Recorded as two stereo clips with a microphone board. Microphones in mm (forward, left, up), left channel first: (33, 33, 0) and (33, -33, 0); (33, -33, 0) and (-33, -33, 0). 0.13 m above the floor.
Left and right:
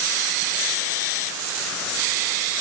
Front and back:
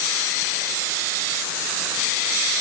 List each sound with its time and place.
Only background noise.